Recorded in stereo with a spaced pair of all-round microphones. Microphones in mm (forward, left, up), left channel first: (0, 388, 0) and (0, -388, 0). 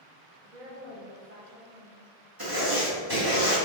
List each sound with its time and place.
0.4 s a woman speaking: 55° right (ahead or behind), 1.0 m
2.4 s writing: 30° right (ahead or behind), 1.8 m